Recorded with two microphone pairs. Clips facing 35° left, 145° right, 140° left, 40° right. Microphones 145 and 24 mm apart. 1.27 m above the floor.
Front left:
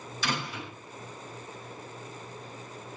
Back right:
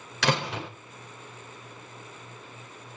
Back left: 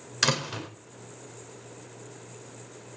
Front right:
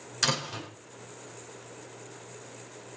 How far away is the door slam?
About 4.5 m.